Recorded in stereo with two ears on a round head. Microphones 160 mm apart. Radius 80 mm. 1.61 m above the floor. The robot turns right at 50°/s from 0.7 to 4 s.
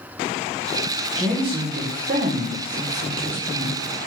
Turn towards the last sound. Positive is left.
turn(degrees=-5)